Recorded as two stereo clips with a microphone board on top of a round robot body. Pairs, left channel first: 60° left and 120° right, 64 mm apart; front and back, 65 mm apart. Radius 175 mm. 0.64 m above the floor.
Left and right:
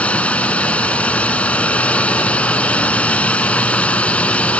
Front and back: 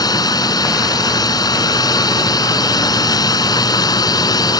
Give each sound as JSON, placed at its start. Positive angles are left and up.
{"t": 0.0, "sound": "a drone", "azimuth_deg": -10}